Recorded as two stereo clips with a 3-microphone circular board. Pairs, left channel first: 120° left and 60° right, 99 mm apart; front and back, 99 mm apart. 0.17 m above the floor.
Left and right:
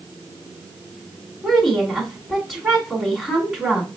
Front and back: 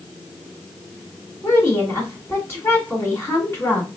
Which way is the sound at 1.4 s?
20° left.